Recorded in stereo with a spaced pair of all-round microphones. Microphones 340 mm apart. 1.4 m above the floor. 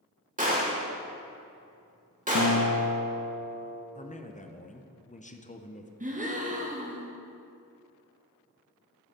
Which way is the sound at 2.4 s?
45° left (ahead or behind).